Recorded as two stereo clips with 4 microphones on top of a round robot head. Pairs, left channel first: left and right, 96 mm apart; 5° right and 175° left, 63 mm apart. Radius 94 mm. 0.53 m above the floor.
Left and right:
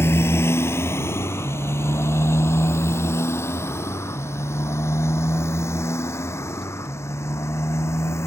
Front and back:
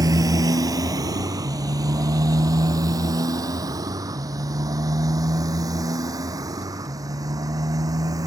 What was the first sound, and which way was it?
A motorcycle, 155° left.